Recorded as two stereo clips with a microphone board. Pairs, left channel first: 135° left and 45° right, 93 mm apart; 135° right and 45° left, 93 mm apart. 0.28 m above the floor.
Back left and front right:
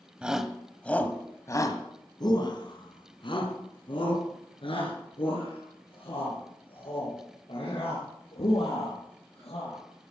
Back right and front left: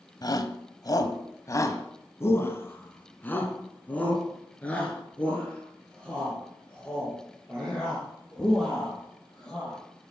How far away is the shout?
About 1.2 m.